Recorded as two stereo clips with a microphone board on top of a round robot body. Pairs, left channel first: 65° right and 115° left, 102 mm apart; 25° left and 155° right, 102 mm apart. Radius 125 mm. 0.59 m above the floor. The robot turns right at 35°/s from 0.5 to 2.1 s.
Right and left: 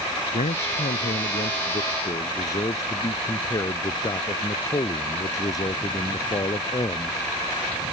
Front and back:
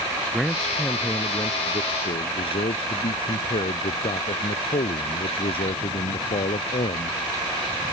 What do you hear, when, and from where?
0.3 s a man speaking: 65° right; by 7.2 s 10° right